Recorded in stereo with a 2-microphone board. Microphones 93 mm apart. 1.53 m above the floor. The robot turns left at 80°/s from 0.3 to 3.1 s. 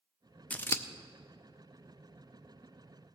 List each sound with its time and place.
0.5 s scissors: 15° left (ahead or behind), 0.6 m; by 0.8 s 30° left (ahead or behind), 0.6 m